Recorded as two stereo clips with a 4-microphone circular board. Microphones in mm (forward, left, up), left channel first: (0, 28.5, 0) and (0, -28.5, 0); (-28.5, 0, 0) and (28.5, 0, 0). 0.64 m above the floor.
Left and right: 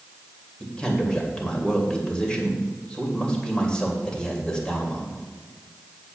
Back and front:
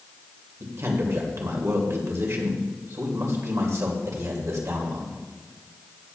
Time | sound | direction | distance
0.6 | a man speaking | 20° left | 2.5 m